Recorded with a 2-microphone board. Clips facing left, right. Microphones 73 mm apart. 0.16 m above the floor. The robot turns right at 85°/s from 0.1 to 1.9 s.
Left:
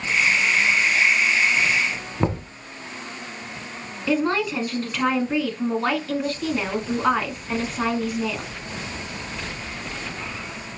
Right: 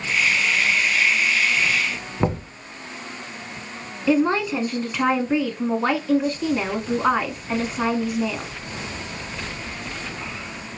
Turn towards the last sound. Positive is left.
turn(degrees=-10)  # may be behind; listen again after turning